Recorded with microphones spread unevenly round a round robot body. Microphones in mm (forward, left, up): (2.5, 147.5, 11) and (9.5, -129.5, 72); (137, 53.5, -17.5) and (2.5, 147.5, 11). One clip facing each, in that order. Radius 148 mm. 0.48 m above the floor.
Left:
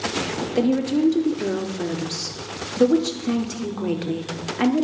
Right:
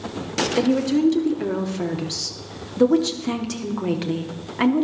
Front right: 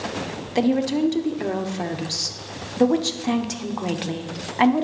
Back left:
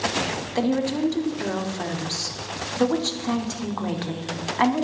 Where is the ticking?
No ticking in this recording.